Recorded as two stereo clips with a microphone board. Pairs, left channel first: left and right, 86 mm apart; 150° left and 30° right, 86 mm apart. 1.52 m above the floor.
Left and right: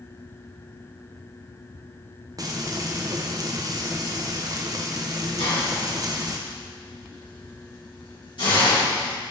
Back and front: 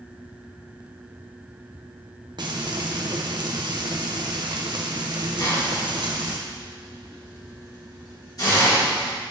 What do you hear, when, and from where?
2.4 s frying: 50° right, 0.7 m
5.4 s a hiss: 105° left, 2.5 m